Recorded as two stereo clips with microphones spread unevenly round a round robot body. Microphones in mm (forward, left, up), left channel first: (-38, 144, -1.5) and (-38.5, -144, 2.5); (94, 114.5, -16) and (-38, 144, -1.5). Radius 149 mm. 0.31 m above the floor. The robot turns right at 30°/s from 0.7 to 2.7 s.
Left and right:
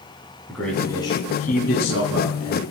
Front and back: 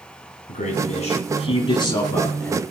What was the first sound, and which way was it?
A man speaking, 5° left.